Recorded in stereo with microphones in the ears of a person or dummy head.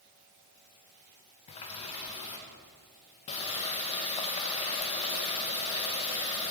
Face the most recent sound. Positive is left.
turn(degrees=30)  # may be behind; listen again after turning